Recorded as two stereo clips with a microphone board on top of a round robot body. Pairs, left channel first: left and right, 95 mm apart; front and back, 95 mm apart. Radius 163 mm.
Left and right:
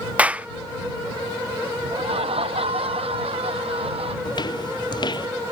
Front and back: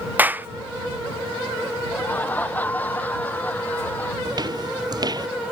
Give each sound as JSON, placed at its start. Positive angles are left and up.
{"t": 0.2, "sound": "a clap", "azimuth_deg": -145}
{"t": 1.9, "sound": "laughter", "azimuth_deg": -75}
{"t": 4.2, "sound": "footsteps", "azimuth_deg": 135}